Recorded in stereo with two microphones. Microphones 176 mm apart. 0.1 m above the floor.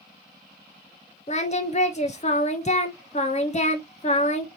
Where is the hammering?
I don't hear hammering.